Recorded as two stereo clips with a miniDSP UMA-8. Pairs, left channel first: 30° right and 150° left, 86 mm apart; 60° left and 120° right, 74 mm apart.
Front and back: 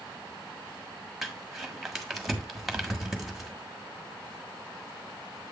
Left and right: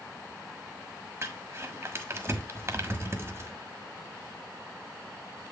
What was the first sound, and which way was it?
Crumpling, 125° right.